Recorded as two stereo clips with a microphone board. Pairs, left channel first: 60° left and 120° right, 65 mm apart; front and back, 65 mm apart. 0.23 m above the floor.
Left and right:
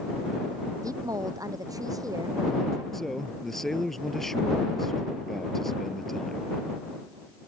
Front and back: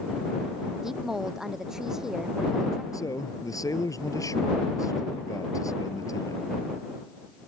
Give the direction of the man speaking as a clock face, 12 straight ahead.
1 o'clock.